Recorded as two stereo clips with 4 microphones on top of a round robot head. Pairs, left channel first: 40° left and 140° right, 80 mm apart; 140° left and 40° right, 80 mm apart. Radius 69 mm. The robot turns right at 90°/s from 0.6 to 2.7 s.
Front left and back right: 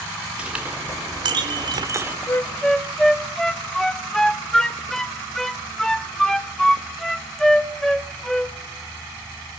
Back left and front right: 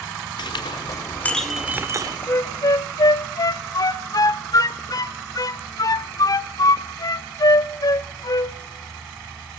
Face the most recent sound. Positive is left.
turn(degrees=125)